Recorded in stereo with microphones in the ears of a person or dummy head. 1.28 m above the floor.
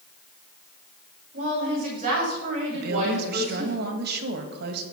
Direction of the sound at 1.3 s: 40° right (ahead or behind).